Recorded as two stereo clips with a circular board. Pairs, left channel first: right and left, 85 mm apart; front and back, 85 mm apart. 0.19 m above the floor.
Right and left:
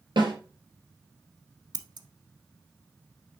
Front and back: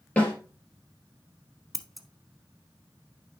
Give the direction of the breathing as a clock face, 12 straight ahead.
No breathing in this recording.